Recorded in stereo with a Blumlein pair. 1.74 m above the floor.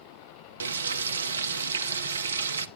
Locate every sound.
0.6 s frying: 70° right, 0.8 m